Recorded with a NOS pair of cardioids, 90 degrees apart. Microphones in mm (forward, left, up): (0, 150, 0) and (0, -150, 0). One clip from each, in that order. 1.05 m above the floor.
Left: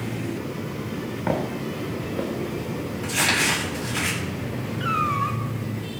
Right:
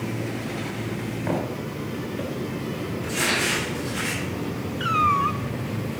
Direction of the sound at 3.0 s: 65° left.